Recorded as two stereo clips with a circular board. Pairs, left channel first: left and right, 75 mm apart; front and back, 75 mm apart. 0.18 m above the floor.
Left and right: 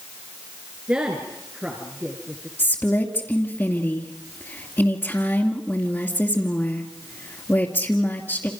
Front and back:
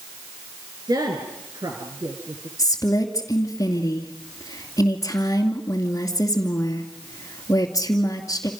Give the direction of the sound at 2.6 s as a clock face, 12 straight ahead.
11 o'clock.